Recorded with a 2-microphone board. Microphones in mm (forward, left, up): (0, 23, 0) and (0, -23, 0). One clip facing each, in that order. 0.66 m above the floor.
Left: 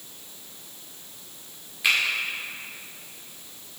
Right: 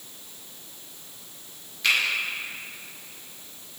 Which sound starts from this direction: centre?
A finger snap, at 1.8 s.